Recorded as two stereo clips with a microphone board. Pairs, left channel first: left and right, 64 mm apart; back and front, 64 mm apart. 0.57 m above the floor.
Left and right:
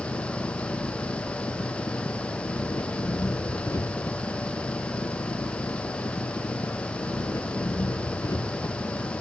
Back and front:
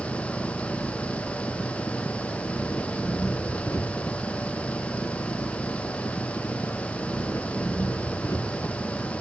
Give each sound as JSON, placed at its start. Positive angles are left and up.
{"t": 0.0, "sound": "an engine running", "azimuth_deg": 130}